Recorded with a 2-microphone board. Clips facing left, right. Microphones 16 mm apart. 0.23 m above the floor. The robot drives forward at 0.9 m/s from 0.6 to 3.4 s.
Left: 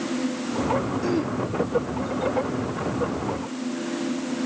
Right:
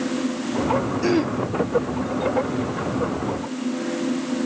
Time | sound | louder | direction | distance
1.0 | throat clearing | right 4 dB | 45° right (ahead or behind) | 0.6 m